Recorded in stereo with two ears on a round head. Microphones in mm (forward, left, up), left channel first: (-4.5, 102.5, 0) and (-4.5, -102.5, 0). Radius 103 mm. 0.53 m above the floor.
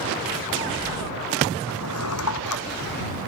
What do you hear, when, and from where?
1.7 s a drawer: 75° left (ahead or behind)